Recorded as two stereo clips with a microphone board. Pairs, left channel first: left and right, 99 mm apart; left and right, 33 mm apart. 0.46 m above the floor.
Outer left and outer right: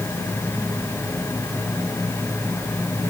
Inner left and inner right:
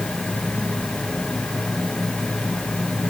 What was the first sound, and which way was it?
Only background noise.